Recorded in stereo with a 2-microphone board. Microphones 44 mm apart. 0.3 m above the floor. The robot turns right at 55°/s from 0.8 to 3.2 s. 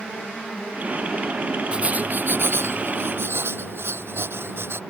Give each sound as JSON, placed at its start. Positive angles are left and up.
{"t": 1.7, "sound": "writing", "azimuth_deg": -155}